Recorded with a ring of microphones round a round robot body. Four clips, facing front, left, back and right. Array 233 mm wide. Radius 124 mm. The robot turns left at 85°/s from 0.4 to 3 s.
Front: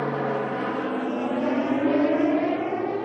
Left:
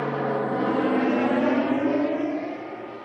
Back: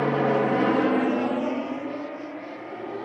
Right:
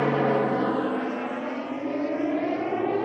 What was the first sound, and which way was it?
An aircraft, 125° right.